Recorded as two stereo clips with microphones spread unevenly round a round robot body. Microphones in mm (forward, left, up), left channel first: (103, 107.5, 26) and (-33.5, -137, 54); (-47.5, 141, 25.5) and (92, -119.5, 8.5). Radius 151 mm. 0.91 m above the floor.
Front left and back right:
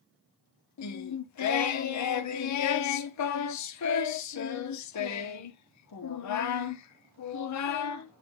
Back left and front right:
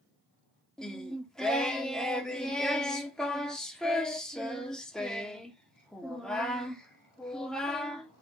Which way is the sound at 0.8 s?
30° left.